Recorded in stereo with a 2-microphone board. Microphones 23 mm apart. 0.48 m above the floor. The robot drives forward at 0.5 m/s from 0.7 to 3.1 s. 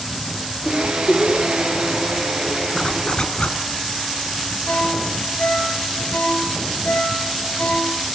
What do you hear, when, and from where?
0.7 s a giggle: 55° left (ahead or behind), 10 m; by 1.5 s 50° left (ahead or behind), 10 m
2.8 s a zipper: 55° left (ahead or behind), 1.7 m; by 3.6 s 60° left (ahead or behind), 1.6 m
4.7 s a ringtone: 85° left, 5.5 m